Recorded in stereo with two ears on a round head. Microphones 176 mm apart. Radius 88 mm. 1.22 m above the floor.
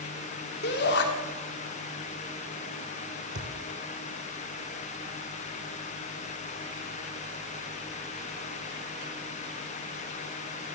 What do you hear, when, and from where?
0.6 s a shout: 60° left (ahead or behind), 3 m
3.4 s a thud: 60° right (ahead or behind), 4 m